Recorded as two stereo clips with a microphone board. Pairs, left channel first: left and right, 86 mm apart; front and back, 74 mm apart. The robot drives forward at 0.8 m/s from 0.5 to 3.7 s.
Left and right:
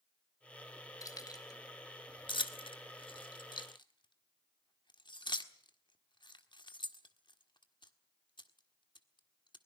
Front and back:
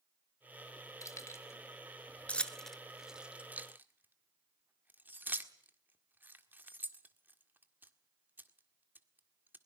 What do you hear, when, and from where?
1.0 s keys jangling: 45° left, 2 m; by 9.6 s 115° left, 1.6 m